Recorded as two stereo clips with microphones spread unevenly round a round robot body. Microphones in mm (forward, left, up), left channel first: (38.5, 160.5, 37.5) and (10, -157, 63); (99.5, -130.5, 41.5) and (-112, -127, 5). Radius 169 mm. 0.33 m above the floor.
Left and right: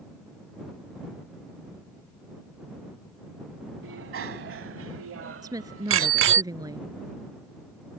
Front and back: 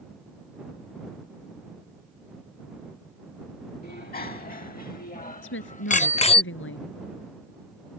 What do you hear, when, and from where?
3.8 s a bicycle bell: 45° right; by 6.4 s 65° right
5.4 s a woman speaking: 15° right